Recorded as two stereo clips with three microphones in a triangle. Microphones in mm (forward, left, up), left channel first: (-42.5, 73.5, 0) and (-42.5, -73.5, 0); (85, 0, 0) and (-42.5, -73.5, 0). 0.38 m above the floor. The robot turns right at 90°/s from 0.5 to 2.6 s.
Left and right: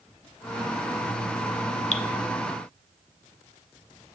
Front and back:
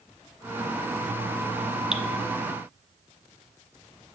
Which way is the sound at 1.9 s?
125° left.